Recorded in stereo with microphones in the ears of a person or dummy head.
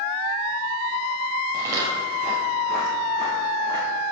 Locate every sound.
1.5 s footsteps: 20° right (ahead or behind), 2.0 m; by 4.0 s 20° left (ahead or behind), 2.5 m